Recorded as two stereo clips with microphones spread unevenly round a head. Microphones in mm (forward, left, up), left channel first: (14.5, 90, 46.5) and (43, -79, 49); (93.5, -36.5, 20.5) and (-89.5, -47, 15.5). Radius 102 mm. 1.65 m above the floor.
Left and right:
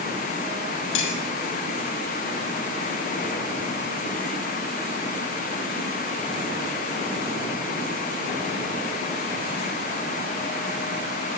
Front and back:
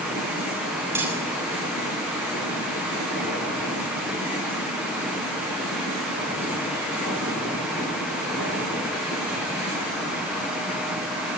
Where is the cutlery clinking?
105° left, 6.5 m.